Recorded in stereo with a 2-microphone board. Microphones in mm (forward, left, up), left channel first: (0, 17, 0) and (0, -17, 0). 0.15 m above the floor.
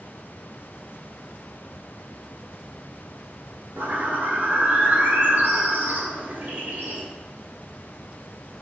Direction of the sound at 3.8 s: 65° right (ahead or behind).